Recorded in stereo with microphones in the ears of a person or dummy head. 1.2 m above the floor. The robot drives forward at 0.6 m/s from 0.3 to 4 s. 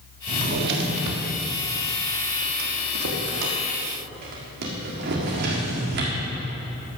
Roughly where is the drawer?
Right.